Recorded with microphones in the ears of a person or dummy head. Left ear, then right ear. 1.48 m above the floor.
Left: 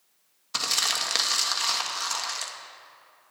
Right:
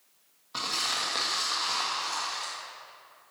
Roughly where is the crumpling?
Left.